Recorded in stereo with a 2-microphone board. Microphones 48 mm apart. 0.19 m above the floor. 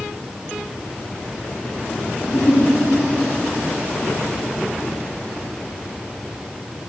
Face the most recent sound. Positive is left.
turn(degrees=45)  # may be behind; listen again after turning